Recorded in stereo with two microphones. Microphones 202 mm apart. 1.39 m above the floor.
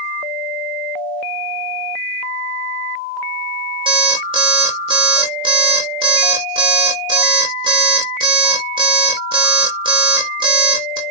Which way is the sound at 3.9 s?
25° right (ahead or behind).